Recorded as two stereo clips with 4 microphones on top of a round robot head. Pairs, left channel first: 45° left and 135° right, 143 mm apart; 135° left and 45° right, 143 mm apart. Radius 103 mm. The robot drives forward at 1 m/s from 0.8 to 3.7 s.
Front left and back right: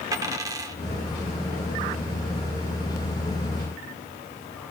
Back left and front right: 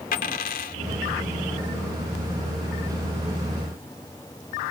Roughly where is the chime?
No chime in this recording.